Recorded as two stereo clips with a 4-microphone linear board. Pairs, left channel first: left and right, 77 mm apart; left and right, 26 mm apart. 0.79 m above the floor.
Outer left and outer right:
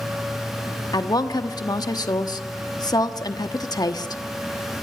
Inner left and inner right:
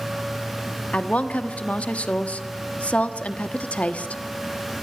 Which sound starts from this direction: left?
A woman speaking, at 0.9 s.